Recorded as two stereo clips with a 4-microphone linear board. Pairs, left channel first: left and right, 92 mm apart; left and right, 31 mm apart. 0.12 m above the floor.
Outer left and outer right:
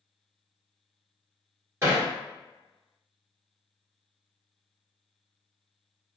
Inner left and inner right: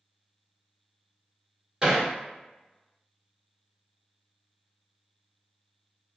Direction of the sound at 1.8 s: 30° right (ahead or behind).